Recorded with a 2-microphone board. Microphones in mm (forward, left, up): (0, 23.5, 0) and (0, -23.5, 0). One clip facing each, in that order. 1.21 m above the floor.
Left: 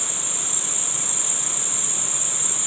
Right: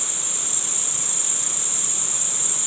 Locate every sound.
0.0 s an insect: 30° left (ahead or behind), 1.3 m